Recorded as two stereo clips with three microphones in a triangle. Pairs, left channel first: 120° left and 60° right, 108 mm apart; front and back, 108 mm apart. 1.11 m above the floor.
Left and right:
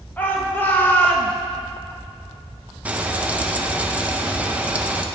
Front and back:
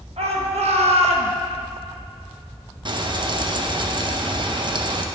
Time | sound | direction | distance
0.2 | a shout | 165° right | 1.6 m
2.9 | frying | 140° right | 0.7 m